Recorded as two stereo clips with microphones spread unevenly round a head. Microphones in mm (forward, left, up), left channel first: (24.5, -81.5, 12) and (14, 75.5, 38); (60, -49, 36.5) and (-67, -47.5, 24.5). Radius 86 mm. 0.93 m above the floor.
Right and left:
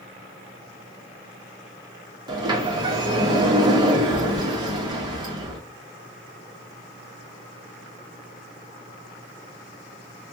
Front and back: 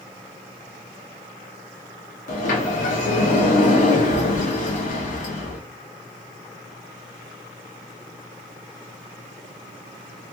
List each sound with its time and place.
2.3 s a sliding door: 25° left, 1.1 m